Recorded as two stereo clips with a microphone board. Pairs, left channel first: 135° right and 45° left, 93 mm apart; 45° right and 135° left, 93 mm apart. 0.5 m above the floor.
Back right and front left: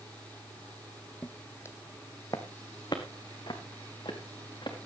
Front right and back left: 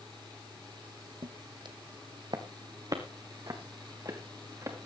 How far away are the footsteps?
About 1.2 m.